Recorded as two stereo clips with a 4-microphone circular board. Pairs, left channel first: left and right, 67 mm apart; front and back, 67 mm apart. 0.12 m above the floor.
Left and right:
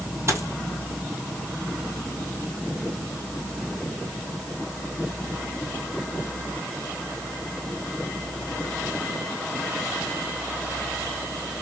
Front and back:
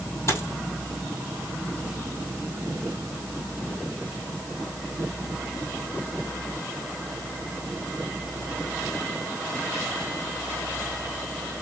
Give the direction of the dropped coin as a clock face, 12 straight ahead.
1 o'clock.